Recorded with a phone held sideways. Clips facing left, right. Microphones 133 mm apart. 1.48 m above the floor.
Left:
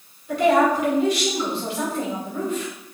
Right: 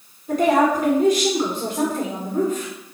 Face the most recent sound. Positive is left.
turn(degrees=-45)  # may be behind; listen again after turning